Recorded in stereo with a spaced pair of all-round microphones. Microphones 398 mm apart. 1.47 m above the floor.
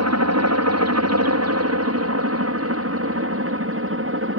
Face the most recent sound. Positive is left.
turn(degrees=-30)  # may be behind; listen again after turning